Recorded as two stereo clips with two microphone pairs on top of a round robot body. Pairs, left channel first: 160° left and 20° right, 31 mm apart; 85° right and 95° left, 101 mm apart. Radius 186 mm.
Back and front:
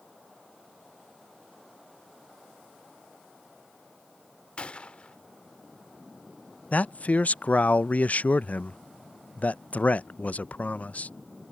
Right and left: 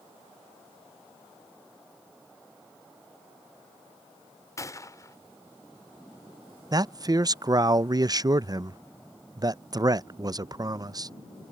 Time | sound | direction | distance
4.6 | a gunshot | 145° right | ?
6.7 | a man speaking | 135° left | ?